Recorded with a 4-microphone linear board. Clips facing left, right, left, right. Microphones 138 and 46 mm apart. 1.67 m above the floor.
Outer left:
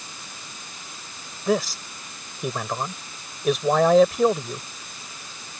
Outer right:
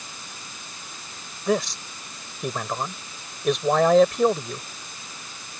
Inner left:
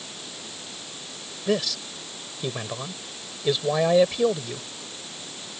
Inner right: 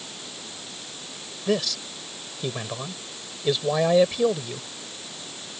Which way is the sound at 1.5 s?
Centre (ahead or behind).